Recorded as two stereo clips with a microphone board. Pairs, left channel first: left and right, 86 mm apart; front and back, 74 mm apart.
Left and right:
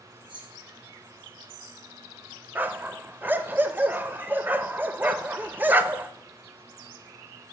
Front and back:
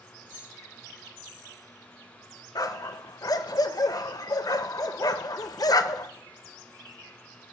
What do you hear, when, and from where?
0.3 s keys jangling: 115° right, 3 m
2.5 s a dog barking: 25° right, 0.5 m